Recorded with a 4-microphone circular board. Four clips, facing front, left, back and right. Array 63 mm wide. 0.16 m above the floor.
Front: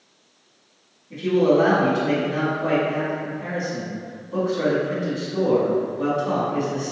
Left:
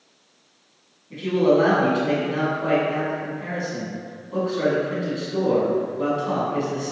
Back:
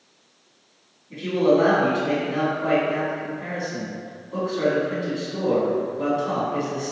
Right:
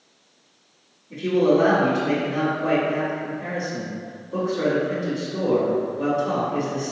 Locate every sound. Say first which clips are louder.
1.1 s a man speaking: even, front 1 dB; 100° left, 1.2 m